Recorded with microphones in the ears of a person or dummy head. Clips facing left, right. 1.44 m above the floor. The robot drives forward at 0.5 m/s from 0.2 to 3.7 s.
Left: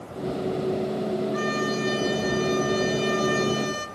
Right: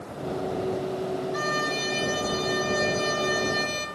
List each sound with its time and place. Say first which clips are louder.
1.3 s a violin: left 3 dB; 35° right (ahead or behind), 2 m; by 3.9 s 25° right (ahead or behind), 3 m